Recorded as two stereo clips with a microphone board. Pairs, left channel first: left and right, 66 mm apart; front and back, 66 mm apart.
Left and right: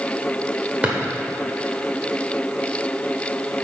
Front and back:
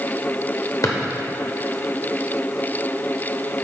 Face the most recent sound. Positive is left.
turn(degrees=-25)